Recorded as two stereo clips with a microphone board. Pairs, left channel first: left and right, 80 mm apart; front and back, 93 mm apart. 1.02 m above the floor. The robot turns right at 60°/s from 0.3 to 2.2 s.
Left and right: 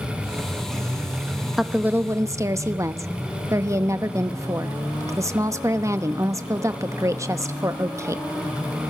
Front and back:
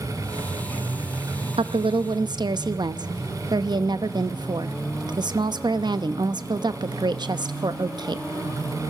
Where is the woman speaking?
Straight behind, 0.9 m; by 8.2 s 140° right, 0.9 m.